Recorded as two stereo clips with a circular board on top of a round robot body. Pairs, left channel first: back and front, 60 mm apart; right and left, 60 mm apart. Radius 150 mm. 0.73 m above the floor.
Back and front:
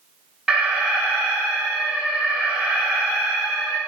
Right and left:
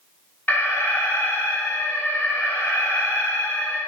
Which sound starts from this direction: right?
An alarm, at 0.5 s.